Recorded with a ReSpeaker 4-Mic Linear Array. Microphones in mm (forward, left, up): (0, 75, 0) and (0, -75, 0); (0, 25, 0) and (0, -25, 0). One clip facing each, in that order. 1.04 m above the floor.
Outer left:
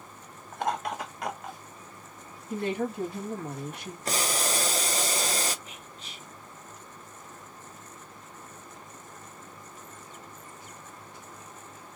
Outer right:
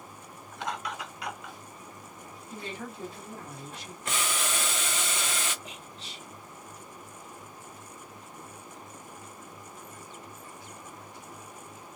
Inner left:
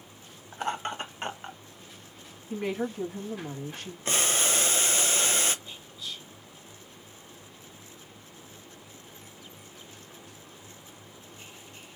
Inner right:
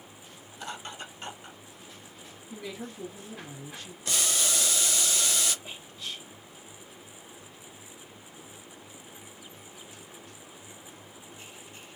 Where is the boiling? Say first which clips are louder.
Outer left 3 dB, inner left 3 dB; 35° left (ahead or behind), 0.7 m.